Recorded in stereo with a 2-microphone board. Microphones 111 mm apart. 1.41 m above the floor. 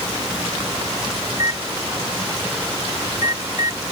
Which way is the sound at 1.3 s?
30° right (ahead or behind).